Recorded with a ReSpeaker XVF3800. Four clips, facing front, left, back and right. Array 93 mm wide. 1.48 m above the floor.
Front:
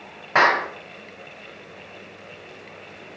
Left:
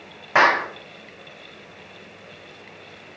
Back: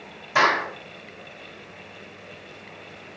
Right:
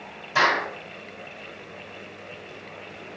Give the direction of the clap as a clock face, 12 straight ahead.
10 o'clock.